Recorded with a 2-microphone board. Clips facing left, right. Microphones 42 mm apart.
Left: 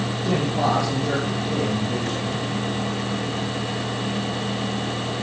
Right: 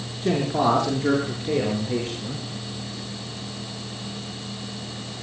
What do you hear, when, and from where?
0.2 s a man speaking: 50° right (ahead or behind), 7 m; by 2.4 s 55° right (ahead or behind), 9 m